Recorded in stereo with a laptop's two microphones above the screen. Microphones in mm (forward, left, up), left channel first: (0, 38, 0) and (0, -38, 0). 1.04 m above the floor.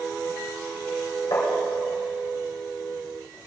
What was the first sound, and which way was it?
Tapping, 70° left (ahead or behind).